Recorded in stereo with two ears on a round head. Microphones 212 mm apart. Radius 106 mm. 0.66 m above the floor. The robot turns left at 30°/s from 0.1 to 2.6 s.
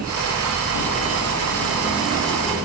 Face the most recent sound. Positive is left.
No sound to turn to.